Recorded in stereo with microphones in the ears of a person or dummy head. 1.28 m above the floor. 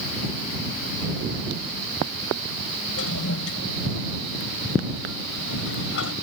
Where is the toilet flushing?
75° left (ahead or behind).